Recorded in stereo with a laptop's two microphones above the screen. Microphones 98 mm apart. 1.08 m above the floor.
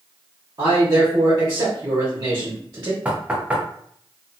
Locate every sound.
0.6 s a man speaking: 40° right (ahead or behind), 1.0 m
3.0 s knocking: 15° right (ahead or behind), 0.5 m